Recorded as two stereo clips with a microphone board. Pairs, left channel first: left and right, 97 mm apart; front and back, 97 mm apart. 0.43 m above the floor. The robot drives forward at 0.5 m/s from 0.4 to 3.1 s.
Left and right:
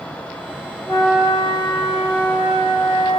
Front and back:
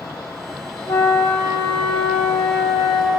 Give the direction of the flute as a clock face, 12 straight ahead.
10 o'clock.